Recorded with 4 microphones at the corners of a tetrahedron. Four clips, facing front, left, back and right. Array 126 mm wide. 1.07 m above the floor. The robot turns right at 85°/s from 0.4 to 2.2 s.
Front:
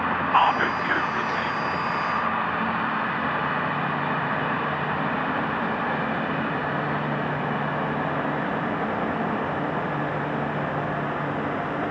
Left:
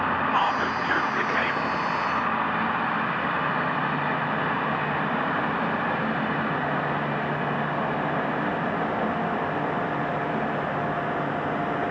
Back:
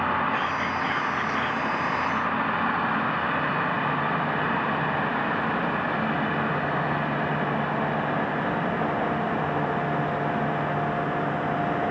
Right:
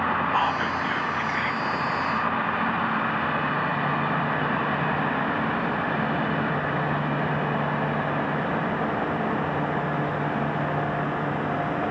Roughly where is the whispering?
Ahead.